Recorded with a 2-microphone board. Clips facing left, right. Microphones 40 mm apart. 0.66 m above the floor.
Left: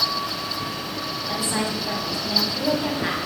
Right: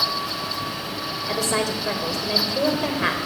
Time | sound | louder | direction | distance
1.3 | a woman speaking | right 3 dB | 70° right (ahead or behind) | 3 m